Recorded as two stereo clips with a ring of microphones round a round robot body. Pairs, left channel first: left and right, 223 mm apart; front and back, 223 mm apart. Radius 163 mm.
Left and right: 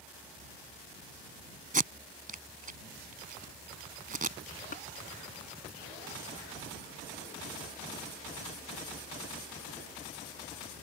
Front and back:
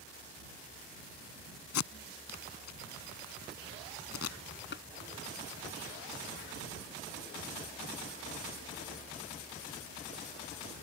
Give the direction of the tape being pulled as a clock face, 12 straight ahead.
1 o'clock.